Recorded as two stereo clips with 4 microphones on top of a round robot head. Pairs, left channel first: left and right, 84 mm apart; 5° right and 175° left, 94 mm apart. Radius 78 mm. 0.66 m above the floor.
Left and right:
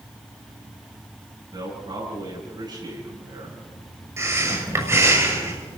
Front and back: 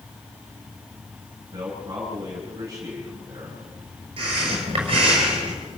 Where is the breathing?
145° right, 6.5 m.